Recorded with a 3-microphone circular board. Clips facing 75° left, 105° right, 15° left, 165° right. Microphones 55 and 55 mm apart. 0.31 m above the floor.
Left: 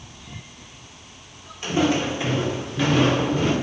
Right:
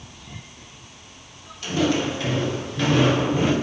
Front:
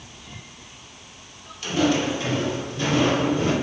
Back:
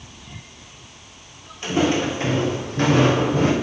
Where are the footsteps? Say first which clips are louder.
Left 1 dB, back 1 dB; 135° left, 4 m; by 3.5 s straight behind, 3 m.